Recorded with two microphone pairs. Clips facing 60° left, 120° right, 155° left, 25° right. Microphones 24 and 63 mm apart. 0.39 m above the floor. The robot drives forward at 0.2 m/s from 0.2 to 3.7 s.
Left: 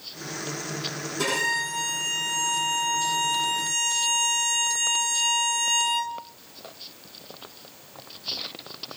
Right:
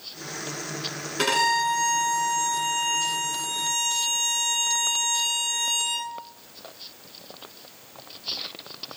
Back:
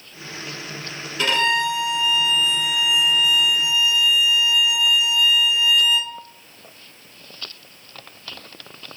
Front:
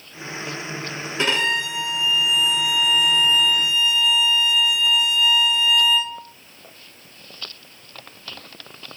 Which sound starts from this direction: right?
A violin, at 1.2 s.